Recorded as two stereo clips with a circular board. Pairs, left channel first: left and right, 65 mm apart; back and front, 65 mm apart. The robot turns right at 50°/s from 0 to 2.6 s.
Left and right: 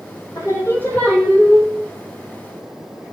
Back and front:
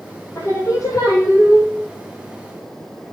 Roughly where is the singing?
Behind left.